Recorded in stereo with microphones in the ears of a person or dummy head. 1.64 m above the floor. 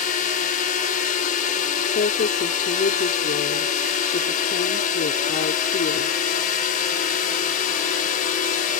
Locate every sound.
0.0 s a drone: 45° left (ahead or behind)
1.9 s a woman speaking: 55° left (ahead or behind)